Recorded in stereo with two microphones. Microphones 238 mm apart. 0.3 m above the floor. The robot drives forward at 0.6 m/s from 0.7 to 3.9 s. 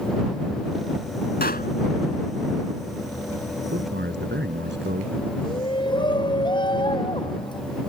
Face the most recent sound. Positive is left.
turn(degrees=20)  # may be behind; listen again after turning